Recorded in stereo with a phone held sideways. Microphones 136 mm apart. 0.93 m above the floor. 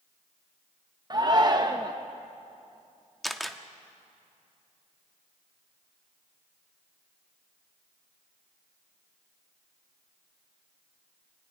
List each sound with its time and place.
1.1 s a shout: 30° right (ahead or behind), 1.0 m
3.2 s a camera shutter: centre (ahead or behind), 1.0 m